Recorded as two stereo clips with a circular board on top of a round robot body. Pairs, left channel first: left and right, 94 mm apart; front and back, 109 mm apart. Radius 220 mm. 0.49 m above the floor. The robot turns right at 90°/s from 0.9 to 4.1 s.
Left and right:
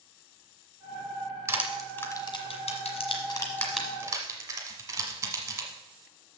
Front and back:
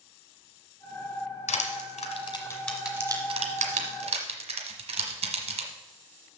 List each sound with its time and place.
1.5 s crushing: 30° right, 1.3 m; by 5.7 s 155° right, 1.3 m